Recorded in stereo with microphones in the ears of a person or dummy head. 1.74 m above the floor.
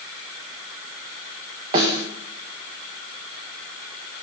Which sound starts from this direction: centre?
A snare drum, at 1.7 s.